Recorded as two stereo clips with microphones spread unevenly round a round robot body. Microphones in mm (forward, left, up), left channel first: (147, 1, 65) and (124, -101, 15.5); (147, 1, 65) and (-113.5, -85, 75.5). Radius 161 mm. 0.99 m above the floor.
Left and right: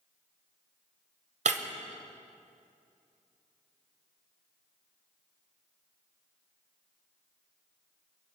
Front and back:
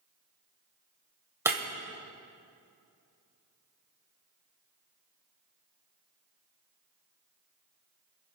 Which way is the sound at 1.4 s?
80° right.